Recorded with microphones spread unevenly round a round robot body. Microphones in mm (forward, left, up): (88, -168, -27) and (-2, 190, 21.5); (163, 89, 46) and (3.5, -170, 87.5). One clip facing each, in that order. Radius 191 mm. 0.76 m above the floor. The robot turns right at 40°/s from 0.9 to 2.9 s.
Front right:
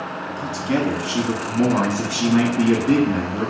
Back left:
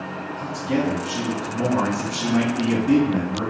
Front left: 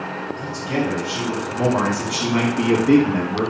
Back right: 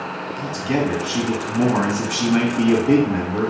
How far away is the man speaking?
About 1.1 m.